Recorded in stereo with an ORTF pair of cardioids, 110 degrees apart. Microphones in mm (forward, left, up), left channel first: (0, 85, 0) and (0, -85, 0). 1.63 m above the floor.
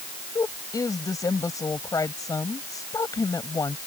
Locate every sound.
0.3 s a woman speaking: 20° left